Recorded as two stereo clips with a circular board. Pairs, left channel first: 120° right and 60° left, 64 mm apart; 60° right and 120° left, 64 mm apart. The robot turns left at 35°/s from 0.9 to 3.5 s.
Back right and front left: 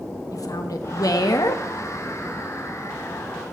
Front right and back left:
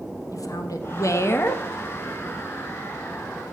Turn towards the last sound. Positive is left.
turn(degrees=175)